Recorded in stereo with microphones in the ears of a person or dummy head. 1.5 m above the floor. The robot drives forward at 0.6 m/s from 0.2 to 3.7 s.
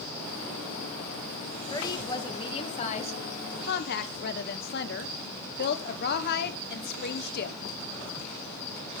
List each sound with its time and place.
1.7 s a woman speaking: 25° left (ahead or behind), 1.7 m; by 7.6 s 60° left (ahead or behind), 0.8 m